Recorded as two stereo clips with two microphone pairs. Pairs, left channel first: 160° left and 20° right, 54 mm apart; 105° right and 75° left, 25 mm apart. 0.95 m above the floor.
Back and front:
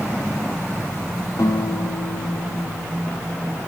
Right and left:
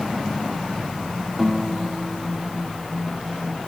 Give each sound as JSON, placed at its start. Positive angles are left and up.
{"t": 1.4, "sound": "a guitar", "azimuth_deg": 155, "distance_m": 1.4}